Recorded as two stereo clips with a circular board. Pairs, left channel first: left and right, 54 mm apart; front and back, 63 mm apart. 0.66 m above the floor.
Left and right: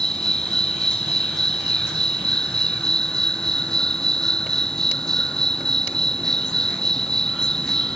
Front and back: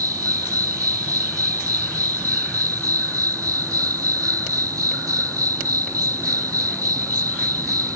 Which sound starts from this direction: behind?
An insect, at 0.0 s.